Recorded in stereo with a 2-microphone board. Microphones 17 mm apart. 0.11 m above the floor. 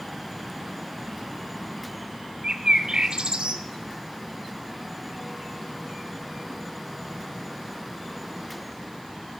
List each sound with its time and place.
2.4 s a bird: 50° right (ahead or behind), 0.6 m